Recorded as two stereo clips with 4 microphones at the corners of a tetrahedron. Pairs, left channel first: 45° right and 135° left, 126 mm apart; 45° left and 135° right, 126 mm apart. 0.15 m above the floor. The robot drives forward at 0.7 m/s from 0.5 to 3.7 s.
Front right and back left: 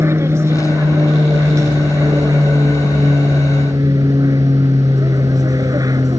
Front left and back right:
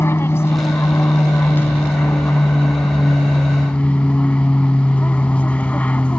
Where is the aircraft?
95° left; by 6.2 s 115° left.